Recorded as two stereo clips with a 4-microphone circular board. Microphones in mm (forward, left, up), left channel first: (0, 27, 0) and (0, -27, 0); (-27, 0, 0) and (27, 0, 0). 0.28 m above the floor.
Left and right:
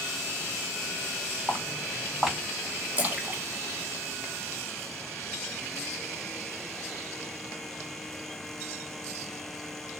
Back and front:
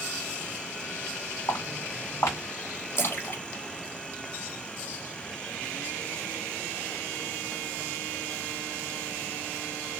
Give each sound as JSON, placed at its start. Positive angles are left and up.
{"t": 1.5, "sound": "footsteps", "azimuth_deg": -170, "distance_m": 2.5}
{"t": 3.0, "sound": "a splash", "azimuth_deg": -145, "distance_m": 1.0}